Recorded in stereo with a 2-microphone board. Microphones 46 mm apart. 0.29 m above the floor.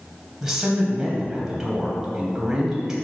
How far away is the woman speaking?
About 1.3 m.